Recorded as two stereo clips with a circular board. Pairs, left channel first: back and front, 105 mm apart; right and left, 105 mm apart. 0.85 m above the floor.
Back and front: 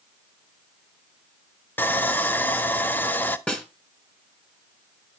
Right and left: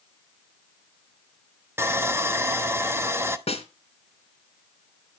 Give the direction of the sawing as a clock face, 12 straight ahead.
8 o'clock.